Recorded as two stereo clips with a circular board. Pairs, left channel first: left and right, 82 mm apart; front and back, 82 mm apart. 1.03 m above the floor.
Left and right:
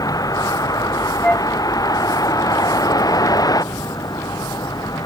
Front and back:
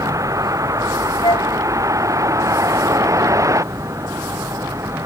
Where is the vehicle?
135° left; by 5.1 s 130° left.